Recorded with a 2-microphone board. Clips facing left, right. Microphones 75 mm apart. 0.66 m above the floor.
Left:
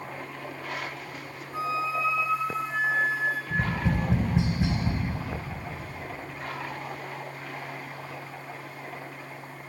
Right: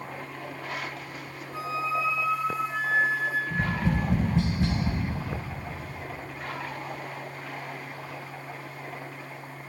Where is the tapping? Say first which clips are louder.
Even; 20° left (ahead or behind), 1.4 m.